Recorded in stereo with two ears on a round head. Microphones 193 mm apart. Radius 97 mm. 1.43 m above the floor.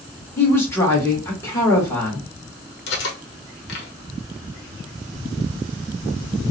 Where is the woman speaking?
10° left (ahead or behind), 1.3 m.